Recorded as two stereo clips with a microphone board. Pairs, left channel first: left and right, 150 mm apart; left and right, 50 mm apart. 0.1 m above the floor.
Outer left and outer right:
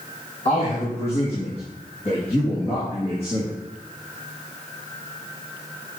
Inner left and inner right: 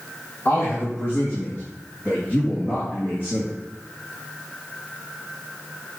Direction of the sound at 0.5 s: 45° left (ahead or behind).